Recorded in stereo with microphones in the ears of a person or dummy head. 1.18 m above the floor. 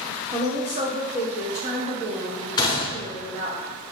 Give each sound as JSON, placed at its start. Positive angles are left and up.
{"t": 0.3, "sound": "a woman speaking", "side_deg": -40, "distance_m": 1.0}
{"t": 2.6, "sound": "a gunshot", "side_deg": 20, "distance_m": 0.6}